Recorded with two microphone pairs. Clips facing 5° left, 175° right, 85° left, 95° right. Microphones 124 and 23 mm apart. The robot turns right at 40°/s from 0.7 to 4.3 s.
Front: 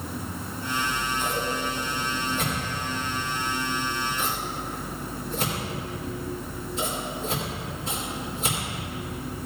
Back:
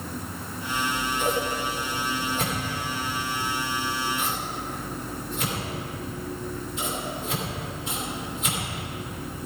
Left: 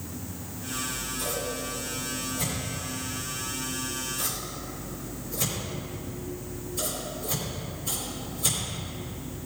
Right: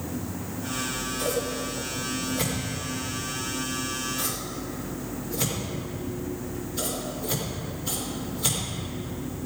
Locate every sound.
0.7 s scissors: 170° left, 4 m; by 9.5 s 50° right, 4 m